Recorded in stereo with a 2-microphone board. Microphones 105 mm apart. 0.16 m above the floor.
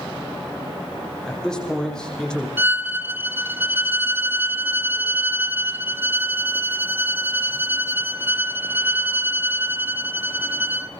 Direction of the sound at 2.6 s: 20° right (ahead or behind).